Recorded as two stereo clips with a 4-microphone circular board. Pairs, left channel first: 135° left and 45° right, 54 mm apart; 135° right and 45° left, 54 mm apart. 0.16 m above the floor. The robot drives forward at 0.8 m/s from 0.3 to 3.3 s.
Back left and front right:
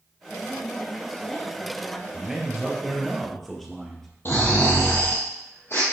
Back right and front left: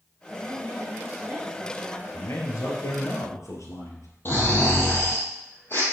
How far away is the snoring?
About 3 m.